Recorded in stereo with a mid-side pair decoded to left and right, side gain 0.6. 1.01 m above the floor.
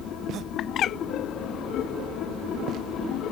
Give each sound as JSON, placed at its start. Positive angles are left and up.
{"t": 0.6, "sound": "a bird", "azimuth_deg": 50}